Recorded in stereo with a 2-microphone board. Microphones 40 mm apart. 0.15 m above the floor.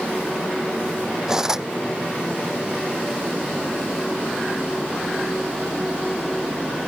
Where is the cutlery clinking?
15° right (ahead or behind).